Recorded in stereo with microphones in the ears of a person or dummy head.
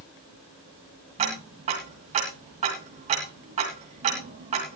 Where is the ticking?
35° right (ahead or behind), 2 m.